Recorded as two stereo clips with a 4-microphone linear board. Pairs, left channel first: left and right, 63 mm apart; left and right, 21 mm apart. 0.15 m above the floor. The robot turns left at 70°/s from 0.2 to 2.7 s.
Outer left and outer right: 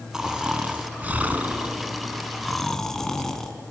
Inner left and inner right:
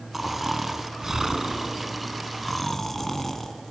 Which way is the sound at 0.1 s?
10° right (ahead or behind).